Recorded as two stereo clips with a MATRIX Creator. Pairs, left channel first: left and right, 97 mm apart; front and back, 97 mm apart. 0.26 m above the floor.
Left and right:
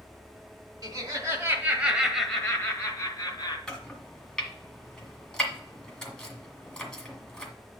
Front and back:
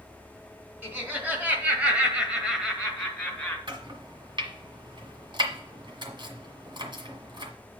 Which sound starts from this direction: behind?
Chopping, at 3.7 s.